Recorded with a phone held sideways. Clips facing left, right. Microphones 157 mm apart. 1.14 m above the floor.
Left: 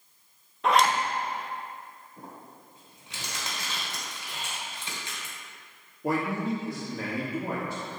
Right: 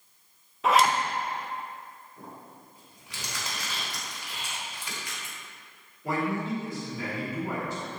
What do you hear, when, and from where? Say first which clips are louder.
0.6 s a zipper: even; centre (ahead or behind), 0.5 m
2.2 s crumpling: even; 25° left (ahead or behind), 2.5 m
4.3 s whispering: left 2 dB; 55° left (ahead or behind), 1.2 m
6.0 s a man speaking: left 1 dB; 70° left (ahead or behind), 1.6 m